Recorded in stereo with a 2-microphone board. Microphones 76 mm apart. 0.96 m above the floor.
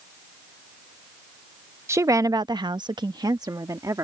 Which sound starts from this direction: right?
A woman speaking, at 1.9 s.